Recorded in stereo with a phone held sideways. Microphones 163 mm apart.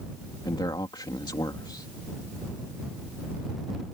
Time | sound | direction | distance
0.5 | a man speaking | 25° left (ahead or behind) | ?